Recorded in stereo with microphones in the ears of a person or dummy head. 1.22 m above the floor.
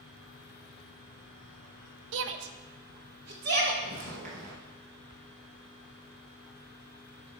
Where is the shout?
70° right (ahead or behind), 0.6 m; by 3.7 s 60° right (ahead or behind), 1.6 m.